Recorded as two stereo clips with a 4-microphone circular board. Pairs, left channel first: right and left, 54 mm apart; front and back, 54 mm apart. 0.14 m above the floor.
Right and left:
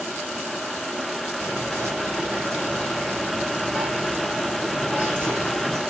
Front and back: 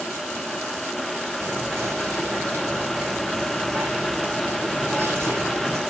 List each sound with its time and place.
1.4 s whispering: 140° left, 3 m